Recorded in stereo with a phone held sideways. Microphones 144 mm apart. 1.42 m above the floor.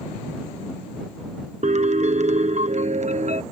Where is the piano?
55° right (ahead or behind).